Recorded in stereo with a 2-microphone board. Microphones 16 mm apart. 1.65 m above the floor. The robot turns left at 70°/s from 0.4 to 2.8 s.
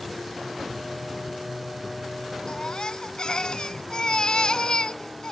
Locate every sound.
2.5 s a baby crying: 75° left (ahead or behind); by 5.3 s 55° left (ahead or behind)